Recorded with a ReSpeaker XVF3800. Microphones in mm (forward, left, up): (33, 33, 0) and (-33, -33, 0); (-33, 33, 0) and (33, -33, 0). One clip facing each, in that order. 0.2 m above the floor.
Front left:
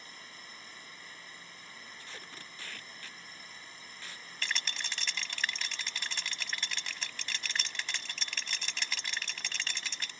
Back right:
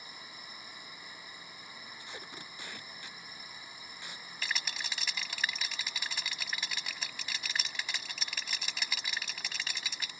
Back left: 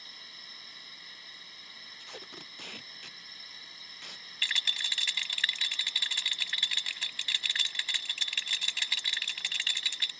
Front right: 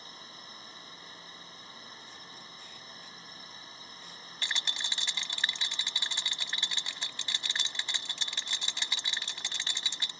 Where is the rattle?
60° right.